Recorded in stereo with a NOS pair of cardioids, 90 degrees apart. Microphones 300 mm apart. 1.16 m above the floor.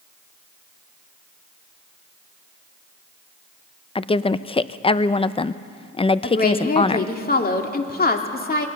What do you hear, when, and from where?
4.0 s a woman speaking: 20° left, 0.7 m
6.2 s a woman speaking: 30° left, 2.5 m